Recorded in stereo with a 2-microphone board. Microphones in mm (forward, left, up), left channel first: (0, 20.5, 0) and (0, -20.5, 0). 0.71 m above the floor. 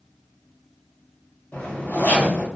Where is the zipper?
50° left (ahead or behind), 1.2 m.